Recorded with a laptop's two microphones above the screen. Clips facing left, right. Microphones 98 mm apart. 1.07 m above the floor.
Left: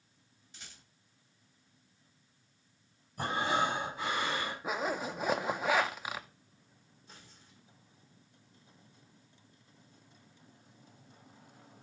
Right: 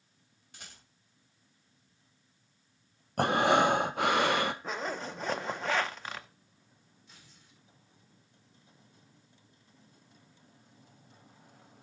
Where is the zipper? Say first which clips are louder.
Left 2 dB; 10° left (ahead or behind), 0.6 m.